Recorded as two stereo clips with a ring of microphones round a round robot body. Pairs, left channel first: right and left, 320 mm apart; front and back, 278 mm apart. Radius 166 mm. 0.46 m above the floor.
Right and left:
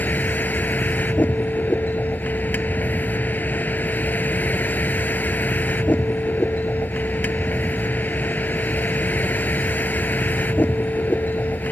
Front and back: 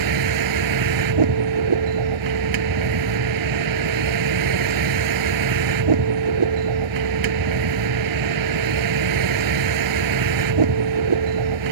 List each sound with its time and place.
0.0 s a vehicle: 175° right